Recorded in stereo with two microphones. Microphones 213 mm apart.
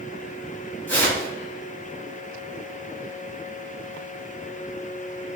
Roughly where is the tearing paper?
Centre.